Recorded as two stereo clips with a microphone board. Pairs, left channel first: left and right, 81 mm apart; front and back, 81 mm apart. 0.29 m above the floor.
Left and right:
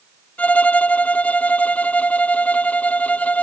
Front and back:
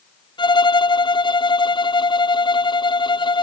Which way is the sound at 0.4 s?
20° left.